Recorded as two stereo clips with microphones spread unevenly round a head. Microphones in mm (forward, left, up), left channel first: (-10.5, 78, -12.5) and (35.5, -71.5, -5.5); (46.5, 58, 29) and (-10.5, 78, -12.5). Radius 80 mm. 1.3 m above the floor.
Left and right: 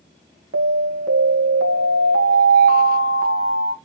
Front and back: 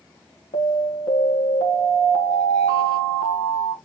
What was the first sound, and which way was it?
An alarm, 50° right.